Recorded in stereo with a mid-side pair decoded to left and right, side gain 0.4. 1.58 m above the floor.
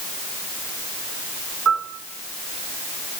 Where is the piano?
55° right, 4.5 m.